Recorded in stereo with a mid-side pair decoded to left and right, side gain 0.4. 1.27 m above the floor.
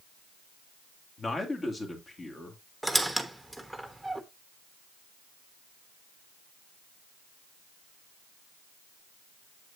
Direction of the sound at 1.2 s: 35° left.